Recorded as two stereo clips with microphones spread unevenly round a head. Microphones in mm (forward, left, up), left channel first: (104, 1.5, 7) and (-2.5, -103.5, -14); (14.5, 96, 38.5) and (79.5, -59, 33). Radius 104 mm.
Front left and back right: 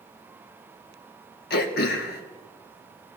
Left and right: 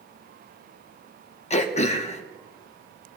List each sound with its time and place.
1.5 s throat clearing: 65° left, 0.7 m